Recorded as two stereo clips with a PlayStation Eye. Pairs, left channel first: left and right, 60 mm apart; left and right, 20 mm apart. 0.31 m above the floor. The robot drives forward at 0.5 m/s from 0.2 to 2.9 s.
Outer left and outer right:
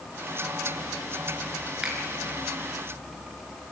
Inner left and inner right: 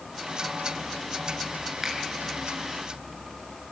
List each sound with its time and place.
1.8 s a finger snap: 15° right (ahead or behind), 5 m